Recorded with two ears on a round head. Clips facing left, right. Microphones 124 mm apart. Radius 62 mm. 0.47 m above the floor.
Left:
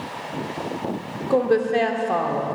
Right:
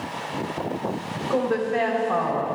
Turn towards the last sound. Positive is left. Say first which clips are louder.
# left 4 dB
turn(degrees=35)  # may be behind; listen again after turning